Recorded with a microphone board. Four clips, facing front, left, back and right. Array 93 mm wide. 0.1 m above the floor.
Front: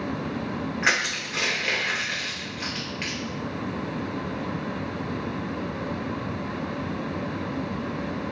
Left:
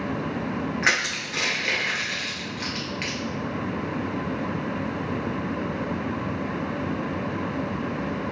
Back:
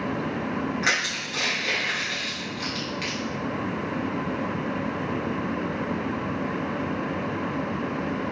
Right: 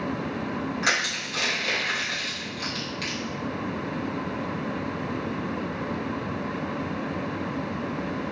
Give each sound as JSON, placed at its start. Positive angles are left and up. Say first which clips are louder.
{"t": 0.8, "sound": "crushing", "louder": "left 2 dB, front 1 dB", "azimuth_deg": 70, "distance_m": 2.0}